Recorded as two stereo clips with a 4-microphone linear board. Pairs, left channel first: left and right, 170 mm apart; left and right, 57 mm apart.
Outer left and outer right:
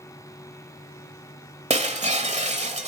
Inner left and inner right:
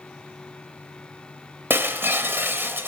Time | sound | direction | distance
1.7 | breaking glass | 40° right (ahead or behind) | 1.6 m